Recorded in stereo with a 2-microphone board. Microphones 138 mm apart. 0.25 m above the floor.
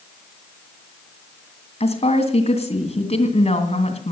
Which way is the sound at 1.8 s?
55° left (ahead or behind).